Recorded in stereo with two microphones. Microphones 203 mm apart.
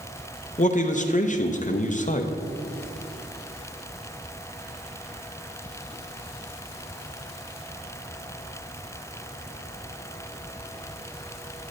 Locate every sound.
0.6 s a man speaking: 40° left (ahead or behind), 0.5 m